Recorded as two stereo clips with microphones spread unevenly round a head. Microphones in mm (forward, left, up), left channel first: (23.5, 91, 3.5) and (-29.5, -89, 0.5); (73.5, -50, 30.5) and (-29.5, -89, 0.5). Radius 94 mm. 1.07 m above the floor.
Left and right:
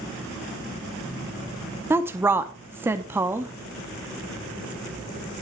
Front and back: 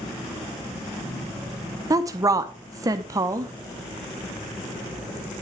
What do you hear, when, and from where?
1.9 s a woman speaking: straight behind, 0.6 m